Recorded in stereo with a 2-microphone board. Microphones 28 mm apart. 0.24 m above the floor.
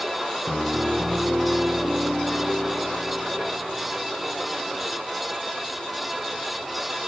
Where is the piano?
45° right (ahead or behind), 6.5 m.